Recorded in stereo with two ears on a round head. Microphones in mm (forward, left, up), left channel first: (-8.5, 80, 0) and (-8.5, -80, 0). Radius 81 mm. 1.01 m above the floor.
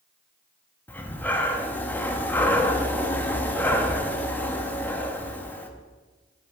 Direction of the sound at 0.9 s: 10° left (ahead or behind).